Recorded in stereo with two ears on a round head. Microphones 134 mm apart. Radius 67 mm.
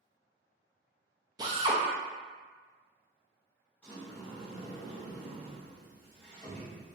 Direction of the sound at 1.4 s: 25° right (ahead or behind).